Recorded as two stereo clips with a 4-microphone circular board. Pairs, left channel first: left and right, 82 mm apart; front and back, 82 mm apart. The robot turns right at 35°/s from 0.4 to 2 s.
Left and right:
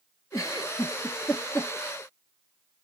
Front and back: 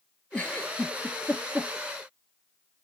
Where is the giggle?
70° left, 1.5 m; by 1.7 s 115° left, 1.5 m.